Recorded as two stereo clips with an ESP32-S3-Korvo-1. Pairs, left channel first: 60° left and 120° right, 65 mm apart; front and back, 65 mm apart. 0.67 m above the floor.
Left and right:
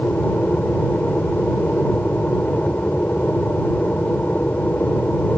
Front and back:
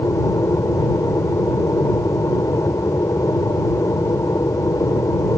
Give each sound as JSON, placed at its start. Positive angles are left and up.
{"t": 0.0, "sound": "an aircraft", "azimuth_deg": 0}